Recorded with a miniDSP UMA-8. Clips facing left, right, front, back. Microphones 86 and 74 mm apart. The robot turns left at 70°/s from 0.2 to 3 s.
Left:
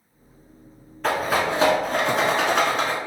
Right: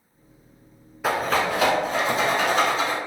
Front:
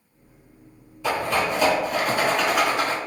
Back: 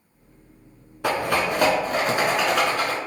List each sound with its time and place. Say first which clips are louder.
1.0 s a rattle: even, back 1 dB; 170° right, 0.8 m; by 3.0 s 55° left, 0.8 m